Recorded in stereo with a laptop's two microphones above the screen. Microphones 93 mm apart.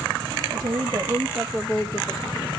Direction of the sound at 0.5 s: 50° right (ahead or behind).